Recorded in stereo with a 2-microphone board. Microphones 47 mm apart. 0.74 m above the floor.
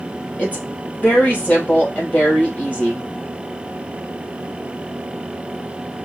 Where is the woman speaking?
30° left (ahead or behind), 3 m.